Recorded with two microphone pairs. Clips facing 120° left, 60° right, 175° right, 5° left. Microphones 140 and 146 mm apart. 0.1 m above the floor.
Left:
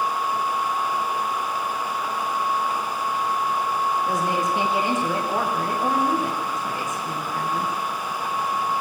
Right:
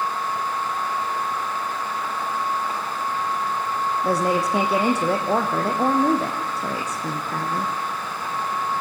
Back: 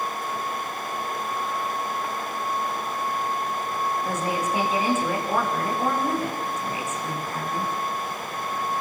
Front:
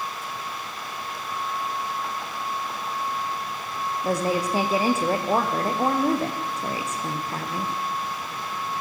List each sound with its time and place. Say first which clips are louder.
4.0 s a woman speaking: right 2 dB, front 2 dB; 50° right, 5.5 m